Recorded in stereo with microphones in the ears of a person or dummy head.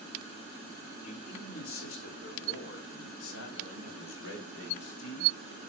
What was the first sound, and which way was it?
A man speaking, 45° left (ahead or behind).